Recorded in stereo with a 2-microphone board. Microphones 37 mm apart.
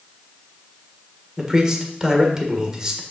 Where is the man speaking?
20° right (ahead or behind), 1.6 m.